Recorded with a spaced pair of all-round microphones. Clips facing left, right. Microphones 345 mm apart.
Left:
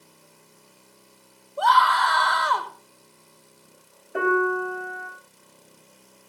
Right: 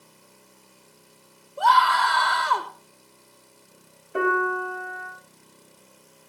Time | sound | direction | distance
1.6 | a scream | 35° right (ahead or behind) | 1.4 m
4.1 | a piano | 5° right (ahead or behind) | 5.5 m